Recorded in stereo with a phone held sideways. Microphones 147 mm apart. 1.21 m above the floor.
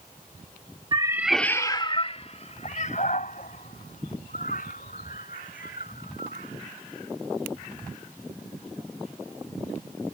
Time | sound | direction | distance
0.9 | a cat meowing | 35° right (ahead or behind) | ?